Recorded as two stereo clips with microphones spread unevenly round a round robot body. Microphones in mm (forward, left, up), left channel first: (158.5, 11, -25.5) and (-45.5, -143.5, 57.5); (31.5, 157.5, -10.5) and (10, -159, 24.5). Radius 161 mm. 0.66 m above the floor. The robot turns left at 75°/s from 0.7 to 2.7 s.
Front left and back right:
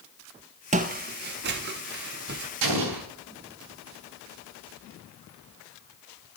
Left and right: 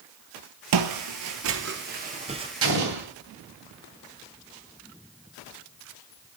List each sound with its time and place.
0.7 s footsteps: 95° right, 1.2 m; by 2.5 s 165° right, 1.0 m
2.6 s an explosion: 150° right, 3 m; by 3.1 s 155° right, 3 m